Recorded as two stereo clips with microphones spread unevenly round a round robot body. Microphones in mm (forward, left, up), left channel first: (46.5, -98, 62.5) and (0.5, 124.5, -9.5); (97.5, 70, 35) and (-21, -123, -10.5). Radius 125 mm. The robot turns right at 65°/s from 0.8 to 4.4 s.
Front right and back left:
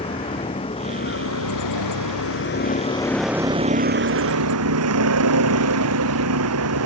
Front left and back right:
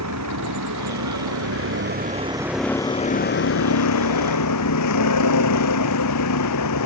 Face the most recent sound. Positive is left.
turn(degrees=85)